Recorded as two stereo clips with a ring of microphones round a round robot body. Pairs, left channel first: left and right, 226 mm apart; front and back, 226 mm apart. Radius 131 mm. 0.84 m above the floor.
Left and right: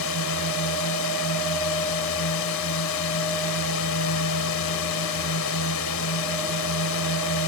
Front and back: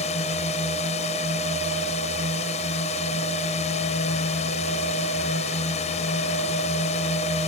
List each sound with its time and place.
0.0 s a drone: 65° left